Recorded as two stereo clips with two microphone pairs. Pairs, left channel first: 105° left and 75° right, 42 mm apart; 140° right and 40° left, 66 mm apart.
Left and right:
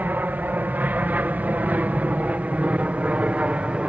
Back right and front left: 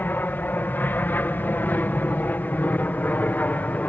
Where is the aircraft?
90° right; by 3.9 s 100° right.